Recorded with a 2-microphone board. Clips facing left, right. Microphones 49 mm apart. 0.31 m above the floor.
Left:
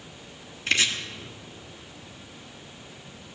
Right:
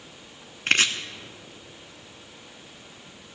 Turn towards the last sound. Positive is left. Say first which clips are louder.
# right 2 dB
turn(degrees=-45)  # may be behind; listen again after turning